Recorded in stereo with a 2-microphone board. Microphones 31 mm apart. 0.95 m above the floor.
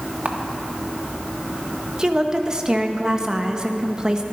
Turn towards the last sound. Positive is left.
turn(degrees=-25)  # may be behind; listen again after turning